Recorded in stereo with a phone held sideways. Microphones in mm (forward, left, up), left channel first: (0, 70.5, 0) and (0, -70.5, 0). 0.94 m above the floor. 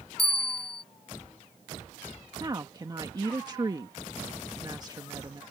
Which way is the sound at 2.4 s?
30° right (ahead or behind).